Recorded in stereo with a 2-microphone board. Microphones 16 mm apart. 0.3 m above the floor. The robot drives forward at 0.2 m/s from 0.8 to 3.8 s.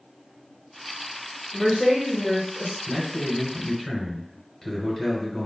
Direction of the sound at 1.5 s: 35° left (ahead or behind).